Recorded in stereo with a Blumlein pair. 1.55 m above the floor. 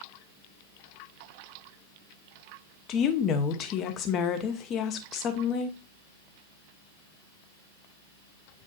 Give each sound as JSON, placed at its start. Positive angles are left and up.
{"t": 2.9, "sound": "a woman speaking", "azimuth_deg": 30, "distance_m": 1.1}